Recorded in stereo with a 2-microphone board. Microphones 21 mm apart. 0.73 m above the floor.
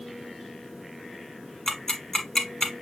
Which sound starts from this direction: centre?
Ticking, at 1.7 s.